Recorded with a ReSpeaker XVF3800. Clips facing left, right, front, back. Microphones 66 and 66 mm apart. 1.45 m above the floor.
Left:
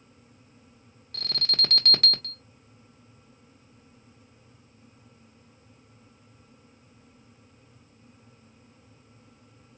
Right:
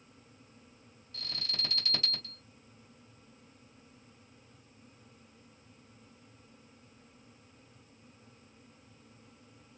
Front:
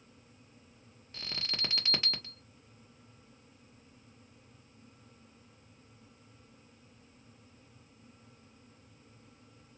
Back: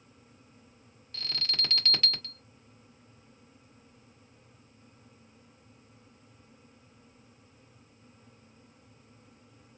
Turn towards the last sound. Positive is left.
turn(degrees=70)